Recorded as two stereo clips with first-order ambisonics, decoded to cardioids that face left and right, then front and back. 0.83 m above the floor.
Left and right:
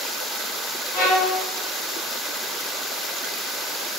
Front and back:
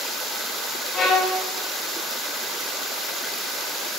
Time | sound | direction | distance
0.9 | a violin | 60° left | 4.5 m